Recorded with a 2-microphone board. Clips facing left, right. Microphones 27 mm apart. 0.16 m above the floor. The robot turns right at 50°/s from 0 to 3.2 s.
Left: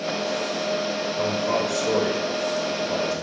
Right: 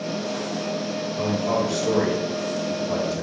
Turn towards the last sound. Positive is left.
turn(degrees=-20)